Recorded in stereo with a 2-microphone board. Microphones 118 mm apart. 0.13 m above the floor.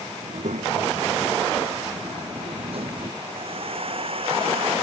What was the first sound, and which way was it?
A child speaking, 80° right.